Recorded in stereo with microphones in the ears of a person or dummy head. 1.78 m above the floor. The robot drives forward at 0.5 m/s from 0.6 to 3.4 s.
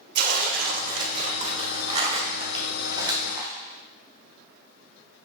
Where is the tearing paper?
50° right (ahead or behind), 1.0 m; by 3.5 s 20° right (ahead or behind), 2 m.